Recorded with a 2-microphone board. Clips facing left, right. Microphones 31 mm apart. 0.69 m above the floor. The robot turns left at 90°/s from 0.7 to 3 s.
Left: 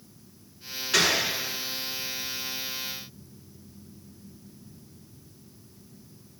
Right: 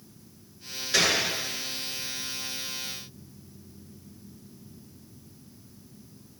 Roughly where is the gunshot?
Left.